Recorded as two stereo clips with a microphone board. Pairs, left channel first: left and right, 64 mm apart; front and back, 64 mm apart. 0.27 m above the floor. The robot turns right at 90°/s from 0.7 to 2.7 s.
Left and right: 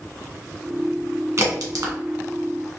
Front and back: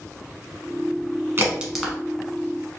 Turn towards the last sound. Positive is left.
turn(degrees=-10)